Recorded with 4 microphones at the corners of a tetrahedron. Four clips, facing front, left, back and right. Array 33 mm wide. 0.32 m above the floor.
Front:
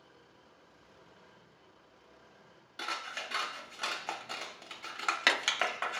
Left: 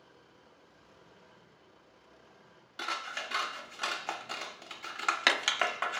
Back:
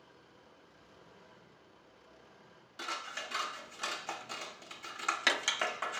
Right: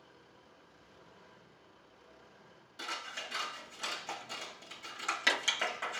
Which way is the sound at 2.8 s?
55° left.